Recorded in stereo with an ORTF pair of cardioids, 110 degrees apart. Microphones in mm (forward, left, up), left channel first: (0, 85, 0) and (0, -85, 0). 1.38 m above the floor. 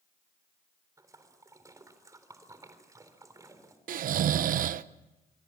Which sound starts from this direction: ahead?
A splash, at 1.0 s.